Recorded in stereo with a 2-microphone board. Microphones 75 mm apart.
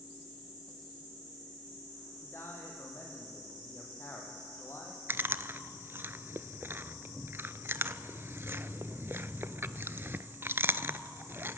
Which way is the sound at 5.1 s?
30° right (ahead or behind).